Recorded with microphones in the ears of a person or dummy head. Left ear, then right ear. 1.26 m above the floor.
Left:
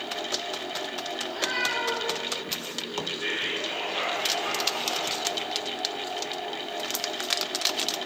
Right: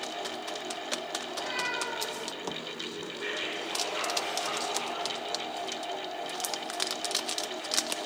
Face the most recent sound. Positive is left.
turn(degrees=-35)  # may be behind; listen again after turning